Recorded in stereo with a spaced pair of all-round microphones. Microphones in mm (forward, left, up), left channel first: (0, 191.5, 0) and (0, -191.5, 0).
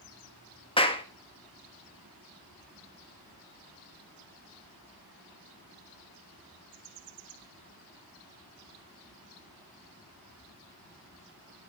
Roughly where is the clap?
Centre.